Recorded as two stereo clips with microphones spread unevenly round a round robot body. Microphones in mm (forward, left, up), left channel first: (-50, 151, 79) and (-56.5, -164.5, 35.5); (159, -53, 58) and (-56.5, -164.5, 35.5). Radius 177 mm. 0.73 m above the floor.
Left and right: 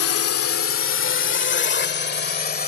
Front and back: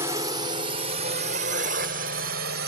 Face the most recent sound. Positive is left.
turn(degrees=150)